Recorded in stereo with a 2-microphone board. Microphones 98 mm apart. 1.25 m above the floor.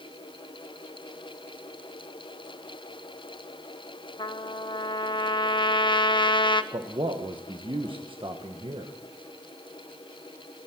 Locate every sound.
4.2 s a trumpet: 55° left (ahead or behind), 0.8 m
6.7 s a man speaking: 60° right (ahead or behind), 1.2 m